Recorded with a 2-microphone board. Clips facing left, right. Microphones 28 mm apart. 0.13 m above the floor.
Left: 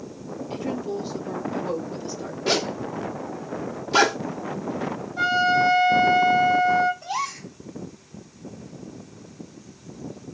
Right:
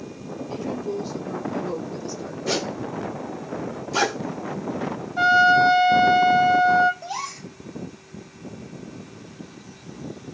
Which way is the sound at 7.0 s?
15° left (ahead or behind).